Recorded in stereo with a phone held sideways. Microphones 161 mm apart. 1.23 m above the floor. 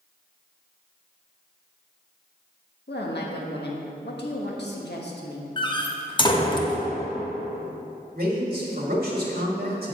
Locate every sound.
2.9 s a woman speaking: 85° left, 1.4 m
5.6 s a door slam: 25° left (ahead or behind), 0.8 m
8.1 s a man speaking: 60° right (ahead or behind), 1.7 m